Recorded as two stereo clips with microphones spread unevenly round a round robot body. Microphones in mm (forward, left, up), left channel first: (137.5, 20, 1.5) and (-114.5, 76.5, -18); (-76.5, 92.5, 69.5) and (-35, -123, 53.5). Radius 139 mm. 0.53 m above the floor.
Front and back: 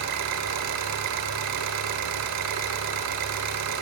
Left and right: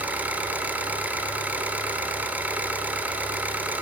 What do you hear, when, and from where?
0.0 s an engine running: 160° right, 1.0 m